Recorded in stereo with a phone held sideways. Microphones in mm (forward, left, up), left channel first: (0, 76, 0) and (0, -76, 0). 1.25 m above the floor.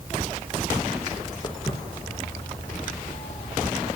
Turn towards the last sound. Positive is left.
turn(degrees=50)  # may be behind; listen again after turning